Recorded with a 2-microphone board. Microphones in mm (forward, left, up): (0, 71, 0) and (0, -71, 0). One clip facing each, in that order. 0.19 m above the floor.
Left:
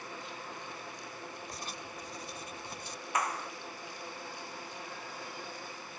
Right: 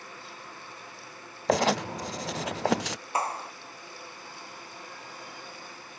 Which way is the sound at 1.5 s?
90° right.